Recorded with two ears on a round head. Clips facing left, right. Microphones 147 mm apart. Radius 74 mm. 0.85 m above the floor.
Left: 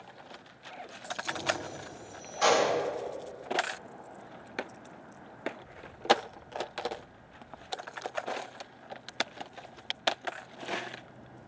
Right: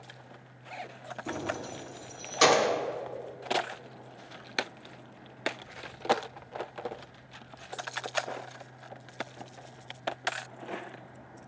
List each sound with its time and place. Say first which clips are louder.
1.3 s keys jangling: even; 55° right (ahead or behind), 1.2 m; by 2.7 s 80° right, 1.7 m